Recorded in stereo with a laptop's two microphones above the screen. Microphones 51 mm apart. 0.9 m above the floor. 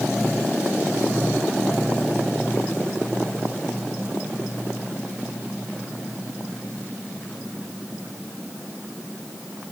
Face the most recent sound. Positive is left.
No sound to turn to.